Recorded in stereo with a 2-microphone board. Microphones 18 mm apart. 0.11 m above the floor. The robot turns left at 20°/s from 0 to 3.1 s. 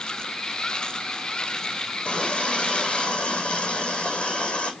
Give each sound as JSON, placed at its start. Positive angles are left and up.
{"t": 2.0, "sound": "a running tap", "side_deg": 75, "distance_m": 4.5}